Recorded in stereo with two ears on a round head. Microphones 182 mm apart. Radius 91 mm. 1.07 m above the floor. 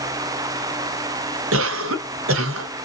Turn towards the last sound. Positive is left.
turn(degrees=-70)  # may be behind; listen again after turning